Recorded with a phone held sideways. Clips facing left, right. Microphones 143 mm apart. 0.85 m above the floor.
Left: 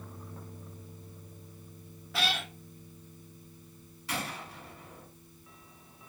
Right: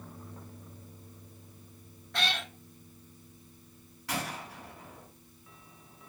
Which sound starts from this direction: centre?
A cat meowing, at 2.1 s.